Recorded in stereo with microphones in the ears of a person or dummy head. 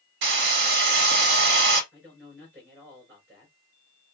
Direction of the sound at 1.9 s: 5° right (ahead or behind).